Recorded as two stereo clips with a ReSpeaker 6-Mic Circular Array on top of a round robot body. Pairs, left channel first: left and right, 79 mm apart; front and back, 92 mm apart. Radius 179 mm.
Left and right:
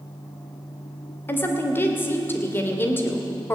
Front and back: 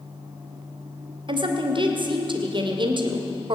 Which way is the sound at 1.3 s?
150° left.